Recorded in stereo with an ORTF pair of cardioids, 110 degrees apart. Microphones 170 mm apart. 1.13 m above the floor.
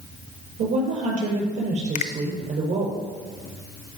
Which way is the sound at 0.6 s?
50° right.